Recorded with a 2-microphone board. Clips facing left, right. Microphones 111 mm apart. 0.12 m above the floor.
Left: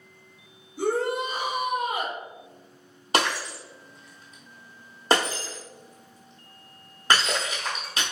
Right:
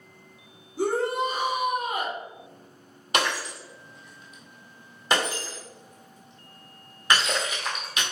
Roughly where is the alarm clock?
No alarm clock in this recording.